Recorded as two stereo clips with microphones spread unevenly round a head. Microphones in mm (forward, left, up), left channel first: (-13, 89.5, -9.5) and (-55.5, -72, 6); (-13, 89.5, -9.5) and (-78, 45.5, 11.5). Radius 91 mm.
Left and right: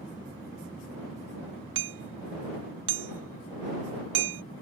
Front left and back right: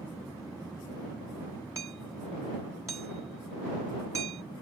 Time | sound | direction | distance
1.8 | hammering | 70° right | ?